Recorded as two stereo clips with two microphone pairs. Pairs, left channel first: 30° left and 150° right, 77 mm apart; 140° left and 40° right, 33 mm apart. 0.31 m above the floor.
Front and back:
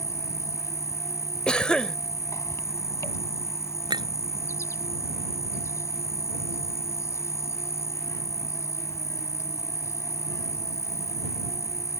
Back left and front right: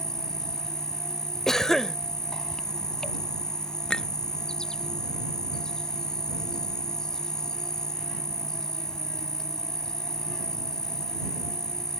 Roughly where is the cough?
Left.